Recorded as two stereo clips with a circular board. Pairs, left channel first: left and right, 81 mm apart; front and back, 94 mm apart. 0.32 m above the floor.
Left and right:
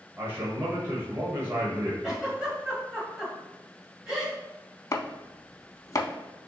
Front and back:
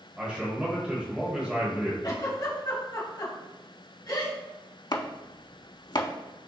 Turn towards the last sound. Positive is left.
turn(degrees=40)